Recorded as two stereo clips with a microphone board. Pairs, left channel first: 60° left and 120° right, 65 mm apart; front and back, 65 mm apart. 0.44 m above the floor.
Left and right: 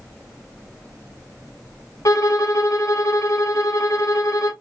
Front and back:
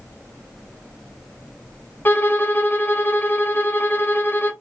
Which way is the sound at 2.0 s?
55° left.